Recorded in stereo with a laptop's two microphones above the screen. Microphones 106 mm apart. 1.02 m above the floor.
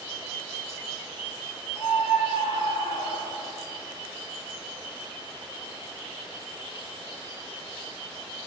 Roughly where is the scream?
Left.